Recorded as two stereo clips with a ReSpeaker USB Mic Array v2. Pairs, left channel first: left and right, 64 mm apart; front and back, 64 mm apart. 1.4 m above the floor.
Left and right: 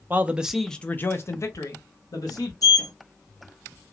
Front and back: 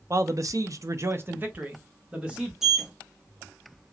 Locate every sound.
0.1 s a man speaking: 145° right, 0.7 m; by 2.5 s 105° left, 1.4 m
2.6 s a sliding door: 100° left, 1.2 m